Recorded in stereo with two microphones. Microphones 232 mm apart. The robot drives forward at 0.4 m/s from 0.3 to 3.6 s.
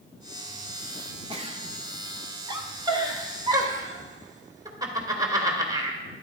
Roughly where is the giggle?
Right.